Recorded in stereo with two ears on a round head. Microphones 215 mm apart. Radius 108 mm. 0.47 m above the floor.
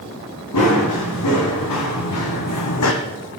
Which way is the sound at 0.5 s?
75° left (ahead or behind).